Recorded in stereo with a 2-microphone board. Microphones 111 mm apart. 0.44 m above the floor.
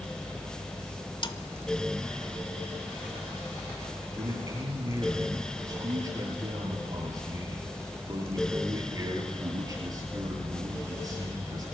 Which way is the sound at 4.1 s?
30° right (ahead or behind).